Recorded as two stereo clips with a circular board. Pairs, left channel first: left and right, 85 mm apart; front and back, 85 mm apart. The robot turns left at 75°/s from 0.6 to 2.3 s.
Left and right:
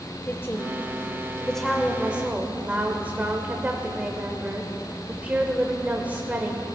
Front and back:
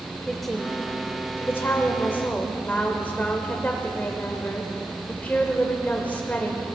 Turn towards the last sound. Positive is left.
turn(degrees=-45)